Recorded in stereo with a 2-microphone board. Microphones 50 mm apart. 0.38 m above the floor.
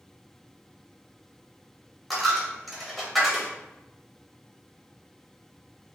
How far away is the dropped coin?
About 0.8 m.